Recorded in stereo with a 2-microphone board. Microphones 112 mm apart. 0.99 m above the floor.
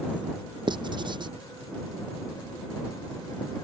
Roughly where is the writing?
Right.